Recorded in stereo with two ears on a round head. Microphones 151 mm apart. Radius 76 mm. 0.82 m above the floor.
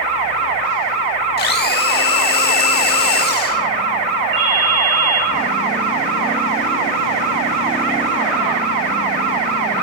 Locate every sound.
1.4 s a blender: 60° left (ahead or behind), 1.4 m
4.3 s a ringtone: 85° right, 5 m